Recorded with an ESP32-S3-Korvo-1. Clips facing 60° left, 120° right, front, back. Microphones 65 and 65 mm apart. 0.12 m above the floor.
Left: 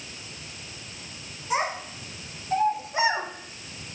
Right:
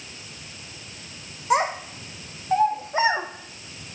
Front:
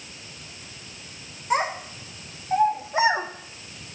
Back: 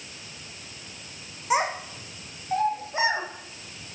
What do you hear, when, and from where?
1.5 s a child speaking: 100° right, 4 m; by 3.3 s 60° right, 3.5 m